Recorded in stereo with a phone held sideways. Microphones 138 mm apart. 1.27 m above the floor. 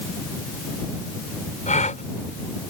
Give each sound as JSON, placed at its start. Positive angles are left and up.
{"t": 1.7, "sound": "a gasp", "side_deg": 65}